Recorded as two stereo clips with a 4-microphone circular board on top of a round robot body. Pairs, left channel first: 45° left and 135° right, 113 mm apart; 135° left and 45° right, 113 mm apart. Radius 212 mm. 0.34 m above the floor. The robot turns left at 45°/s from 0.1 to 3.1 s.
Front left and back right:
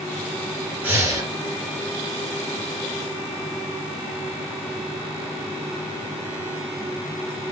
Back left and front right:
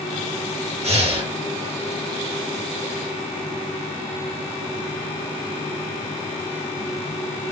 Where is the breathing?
65° right, 1.5 m; by 1.3 s 85° right, 1.5 m.